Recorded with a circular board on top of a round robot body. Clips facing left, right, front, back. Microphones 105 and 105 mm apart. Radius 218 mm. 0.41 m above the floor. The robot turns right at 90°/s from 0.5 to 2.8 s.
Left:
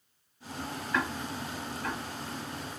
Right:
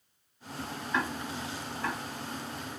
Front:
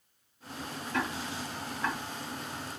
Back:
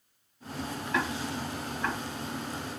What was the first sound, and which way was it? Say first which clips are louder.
Ticking: even, back 2 dB; 175° left.